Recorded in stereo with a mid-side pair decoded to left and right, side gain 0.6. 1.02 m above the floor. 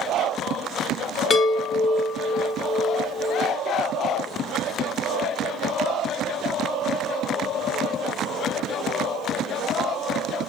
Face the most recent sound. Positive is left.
turn(degrees=40)